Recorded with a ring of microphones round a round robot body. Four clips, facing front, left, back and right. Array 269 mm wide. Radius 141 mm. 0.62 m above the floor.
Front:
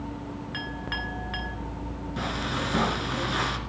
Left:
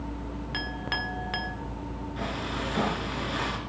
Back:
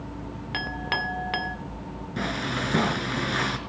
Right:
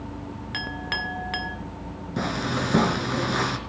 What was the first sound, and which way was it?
A clink, 175° right.